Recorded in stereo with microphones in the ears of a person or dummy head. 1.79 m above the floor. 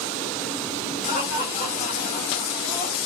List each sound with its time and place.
1.1 s laughter: 40° left (ahead or behind), 4 m